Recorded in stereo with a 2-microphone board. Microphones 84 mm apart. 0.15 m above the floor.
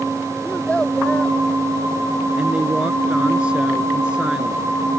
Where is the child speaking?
15° left (ahead or behind).